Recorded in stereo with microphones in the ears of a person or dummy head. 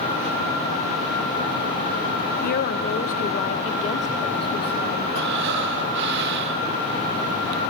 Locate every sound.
2.4 s a woman speaking: 55° left (ahead or behind), 2.5 m; by 5.1 s 25° left (ahead or behind), 3.5 m
5.2 s breathing: 65° right (ahead or behind), 3 m